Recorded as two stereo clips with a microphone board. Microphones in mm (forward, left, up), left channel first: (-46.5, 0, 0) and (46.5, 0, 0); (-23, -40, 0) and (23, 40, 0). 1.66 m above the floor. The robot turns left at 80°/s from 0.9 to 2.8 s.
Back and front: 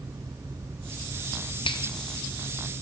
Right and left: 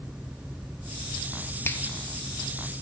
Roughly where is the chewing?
I don't hear chewing.